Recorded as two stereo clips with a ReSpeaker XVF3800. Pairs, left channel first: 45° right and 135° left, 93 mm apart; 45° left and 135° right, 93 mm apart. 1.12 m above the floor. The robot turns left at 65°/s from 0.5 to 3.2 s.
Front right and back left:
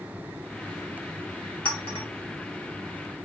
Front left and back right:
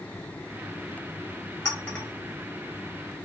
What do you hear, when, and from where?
1.6 s a clink: 10° right, 1.6 m; by 2.1 s 40° right, 1.6 m